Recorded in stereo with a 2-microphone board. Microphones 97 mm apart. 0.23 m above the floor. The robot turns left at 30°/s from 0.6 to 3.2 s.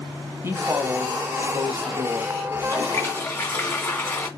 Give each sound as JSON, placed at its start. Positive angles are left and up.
{"t": 0.4, "sound": "a woman speaking", "side_deg": -25, "distance_m": 1.0}
{"t": 2.5, "sound": "a toilet flushing", "side_deg": 35, "distance_m": 2.0}